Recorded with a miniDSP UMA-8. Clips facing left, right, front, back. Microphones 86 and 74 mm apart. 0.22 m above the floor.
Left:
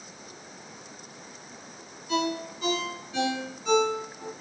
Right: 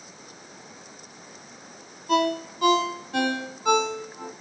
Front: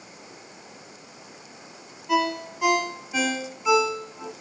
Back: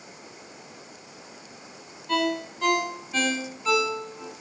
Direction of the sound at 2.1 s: 80° right.